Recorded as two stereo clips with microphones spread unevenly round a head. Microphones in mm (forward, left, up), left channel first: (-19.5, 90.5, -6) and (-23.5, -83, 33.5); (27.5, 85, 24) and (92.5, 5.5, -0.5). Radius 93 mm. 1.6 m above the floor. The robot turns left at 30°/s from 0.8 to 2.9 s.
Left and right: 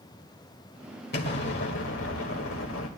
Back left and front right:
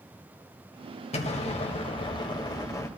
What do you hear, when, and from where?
1.1 s an explosion: 120° left, 2.0 m; by 2.9 s 70° left, 2.0 m